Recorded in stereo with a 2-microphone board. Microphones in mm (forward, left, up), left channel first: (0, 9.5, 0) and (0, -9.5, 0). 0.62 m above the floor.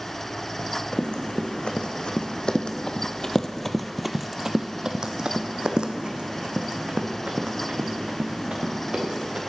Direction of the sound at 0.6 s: 70° left (ahead or behind).